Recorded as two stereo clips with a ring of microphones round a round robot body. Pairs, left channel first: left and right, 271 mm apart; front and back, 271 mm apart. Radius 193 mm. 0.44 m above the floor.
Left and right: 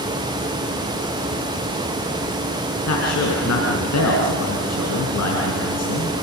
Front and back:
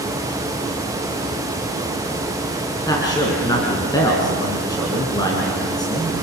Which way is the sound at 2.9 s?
75° left.